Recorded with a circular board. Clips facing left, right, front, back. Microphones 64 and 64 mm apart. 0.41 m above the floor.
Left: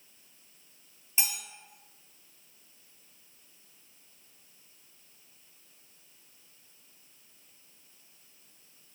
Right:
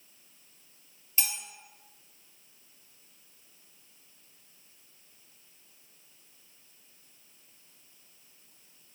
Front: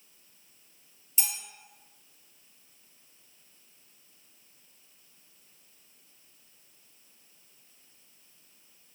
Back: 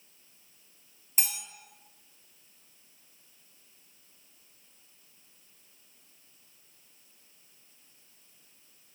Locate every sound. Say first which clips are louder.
1.2 s cutlery clinking: left 1 dB, back 1 dB; 155° left, 0.6 m